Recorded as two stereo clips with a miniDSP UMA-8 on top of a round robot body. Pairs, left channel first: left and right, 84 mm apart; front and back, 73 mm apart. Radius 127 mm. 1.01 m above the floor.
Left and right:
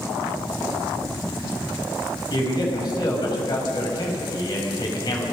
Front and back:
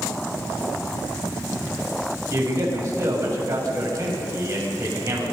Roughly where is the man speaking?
Behind left.